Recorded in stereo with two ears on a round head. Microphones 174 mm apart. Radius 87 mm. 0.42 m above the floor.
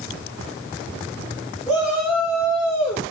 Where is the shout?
5° right (ahead or behind), 3 m; by 3.0 s centre (ahead or behind), 4 m.